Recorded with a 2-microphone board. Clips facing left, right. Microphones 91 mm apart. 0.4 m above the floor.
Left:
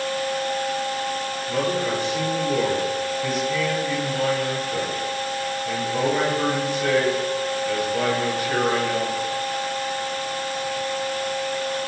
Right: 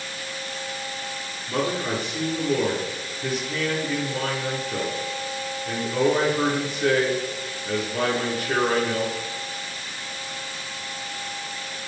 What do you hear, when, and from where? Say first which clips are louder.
1.5 s a man speaking: left 1 dB; 50° right (ahead or behind), 7 m